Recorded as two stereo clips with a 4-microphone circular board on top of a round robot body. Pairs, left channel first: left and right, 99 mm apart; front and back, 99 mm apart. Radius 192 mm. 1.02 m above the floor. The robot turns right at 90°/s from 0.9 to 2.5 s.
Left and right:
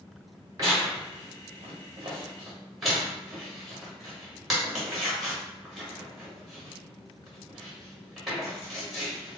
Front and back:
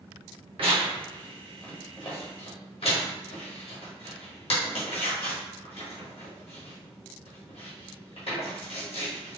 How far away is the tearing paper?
About 1.5 m.